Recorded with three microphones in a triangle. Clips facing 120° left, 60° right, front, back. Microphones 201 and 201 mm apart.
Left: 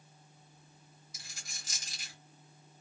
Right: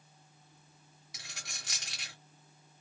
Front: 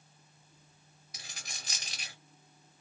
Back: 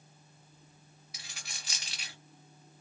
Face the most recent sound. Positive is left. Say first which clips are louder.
# right 6 dB, front 2 dB
turn(degrees=-50)